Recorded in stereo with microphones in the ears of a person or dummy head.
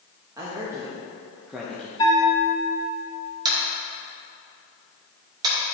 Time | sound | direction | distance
0.4 | a man speaking | 20° right (ahead or behind) | 1.8 m
2.0 | a bell | 20° left (ahead or behind) | 3 m
3.5 | tapping | 25° right (ahead or behind) | 2.5 m